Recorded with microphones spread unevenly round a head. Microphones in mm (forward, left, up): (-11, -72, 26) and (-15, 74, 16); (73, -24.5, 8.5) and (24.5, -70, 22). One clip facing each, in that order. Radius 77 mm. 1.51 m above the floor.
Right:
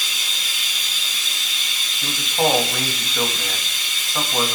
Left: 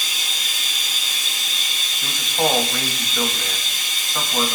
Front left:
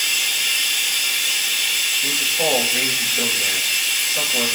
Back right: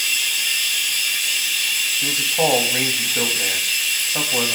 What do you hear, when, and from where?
0.0 s running water: 55° left, 1.4 m
2.0 s a man speaking: 175° right, 2.5 m